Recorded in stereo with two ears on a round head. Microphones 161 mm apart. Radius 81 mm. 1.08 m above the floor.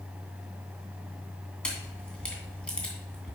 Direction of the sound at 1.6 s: 5° left (ahead or behind).